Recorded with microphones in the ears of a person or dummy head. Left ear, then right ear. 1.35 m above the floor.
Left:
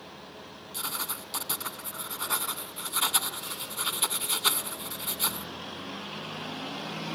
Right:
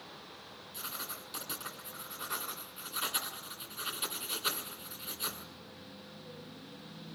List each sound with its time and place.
0.7 s writing: 25° left (ahead or behind), 1.9 m